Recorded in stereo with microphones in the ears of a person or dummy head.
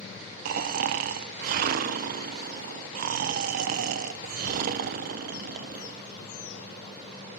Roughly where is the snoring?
Right.